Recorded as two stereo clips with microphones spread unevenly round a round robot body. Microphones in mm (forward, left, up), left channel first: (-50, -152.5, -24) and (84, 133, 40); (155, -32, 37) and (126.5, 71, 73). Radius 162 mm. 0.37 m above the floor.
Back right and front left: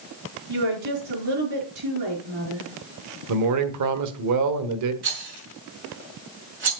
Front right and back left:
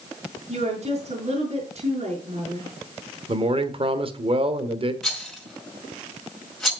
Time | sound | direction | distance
0.5 | a woman speaking | 85° left | 5.5 m
3.3 | a man speaking | 75° left | 1.5 m
5.0 | a rattle | 10° left | 5.5 m